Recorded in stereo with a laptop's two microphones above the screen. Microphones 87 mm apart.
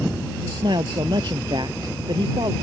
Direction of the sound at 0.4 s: 60° right (ahead or behind).